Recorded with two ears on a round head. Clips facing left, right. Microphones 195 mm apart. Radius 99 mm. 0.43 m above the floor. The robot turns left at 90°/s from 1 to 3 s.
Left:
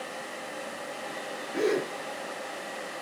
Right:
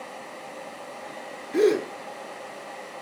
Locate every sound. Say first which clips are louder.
1.5 s a gasp: right 7 dB; 45° right, 4.5 m; by 1.9 s 75° right, 4.5 m